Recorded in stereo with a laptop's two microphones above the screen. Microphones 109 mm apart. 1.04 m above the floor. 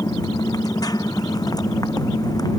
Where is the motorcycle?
35° left (ahead or behind).